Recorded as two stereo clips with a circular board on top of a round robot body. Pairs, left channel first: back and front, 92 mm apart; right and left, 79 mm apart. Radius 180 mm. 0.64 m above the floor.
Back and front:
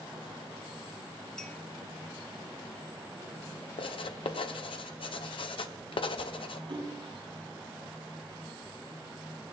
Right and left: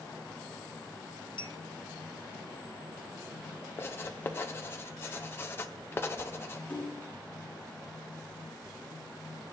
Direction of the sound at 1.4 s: 95° right.